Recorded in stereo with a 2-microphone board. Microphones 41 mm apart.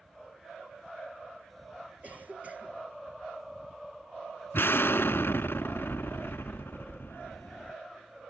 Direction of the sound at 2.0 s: 35° right (ahead or behind).